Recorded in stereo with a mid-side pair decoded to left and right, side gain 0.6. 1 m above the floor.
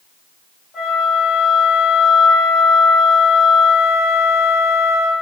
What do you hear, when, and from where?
0.7 s a flute: 50° left, 1.7 m